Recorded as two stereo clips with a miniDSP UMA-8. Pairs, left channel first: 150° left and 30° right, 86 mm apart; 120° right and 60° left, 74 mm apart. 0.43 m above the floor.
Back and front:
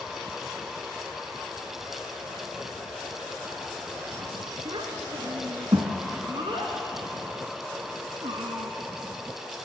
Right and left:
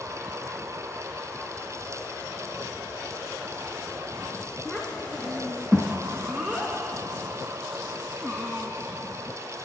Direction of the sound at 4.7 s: 15° right.